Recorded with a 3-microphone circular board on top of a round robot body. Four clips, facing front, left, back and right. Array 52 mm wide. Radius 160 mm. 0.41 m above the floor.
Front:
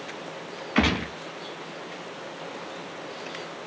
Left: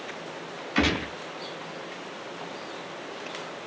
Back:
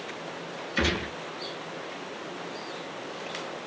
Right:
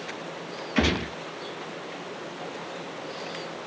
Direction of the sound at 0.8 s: 15° left.